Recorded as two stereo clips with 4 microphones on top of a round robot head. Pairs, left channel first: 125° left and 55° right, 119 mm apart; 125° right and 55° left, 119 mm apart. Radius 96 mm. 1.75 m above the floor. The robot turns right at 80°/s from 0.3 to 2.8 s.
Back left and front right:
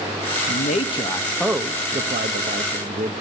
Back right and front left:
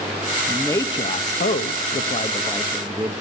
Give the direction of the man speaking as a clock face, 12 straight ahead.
7 o'clock.